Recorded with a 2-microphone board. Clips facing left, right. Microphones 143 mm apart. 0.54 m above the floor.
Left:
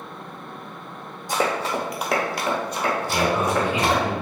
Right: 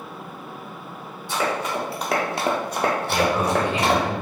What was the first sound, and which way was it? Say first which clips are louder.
Running footsteps: left 1 dB; 45° left (ahead or behind).